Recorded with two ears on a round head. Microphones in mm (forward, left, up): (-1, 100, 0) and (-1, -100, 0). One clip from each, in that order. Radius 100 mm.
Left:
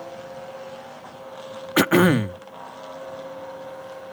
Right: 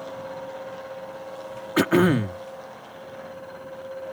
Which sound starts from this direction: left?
Throat clearing, at 1.8 s.